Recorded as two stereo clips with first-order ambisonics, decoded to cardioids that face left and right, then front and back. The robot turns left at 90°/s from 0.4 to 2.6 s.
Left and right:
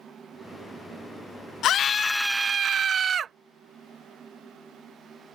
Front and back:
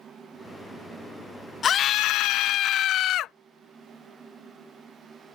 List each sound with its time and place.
1.6 s a scream: 55° left; by 3.3 s 30° right